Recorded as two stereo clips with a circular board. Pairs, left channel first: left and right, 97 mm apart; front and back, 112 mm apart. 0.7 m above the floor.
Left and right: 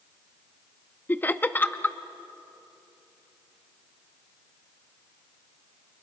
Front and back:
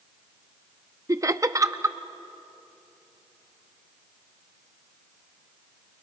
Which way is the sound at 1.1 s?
145° left.